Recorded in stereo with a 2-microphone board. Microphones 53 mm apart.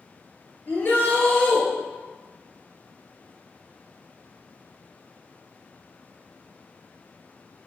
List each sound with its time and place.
0.7 s a shout: 35° left (ahead or behind), 4 m